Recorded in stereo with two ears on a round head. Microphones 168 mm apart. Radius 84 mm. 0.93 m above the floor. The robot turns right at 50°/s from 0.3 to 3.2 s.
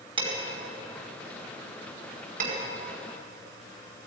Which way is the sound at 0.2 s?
30° right (ahead or behind).